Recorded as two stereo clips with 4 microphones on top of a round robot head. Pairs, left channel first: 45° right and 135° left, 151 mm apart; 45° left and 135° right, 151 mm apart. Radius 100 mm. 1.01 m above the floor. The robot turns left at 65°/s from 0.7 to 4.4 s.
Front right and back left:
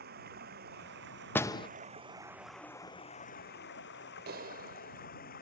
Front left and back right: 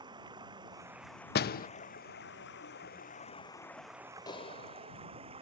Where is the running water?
160° left; by 5.4 s 80° right.